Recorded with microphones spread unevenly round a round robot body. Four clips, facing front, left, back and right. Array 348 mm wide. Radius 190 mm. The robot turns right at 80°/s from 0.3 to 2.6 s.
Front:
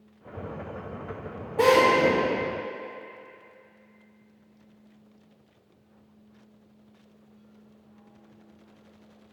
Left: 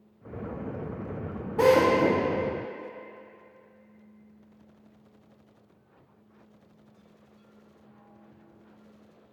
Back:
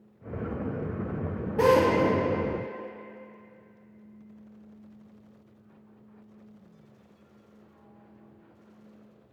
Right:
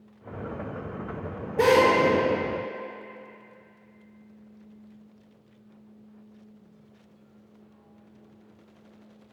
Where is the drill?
130° left, 1.6 m; by 2.2 s 175° left, 1.6 m.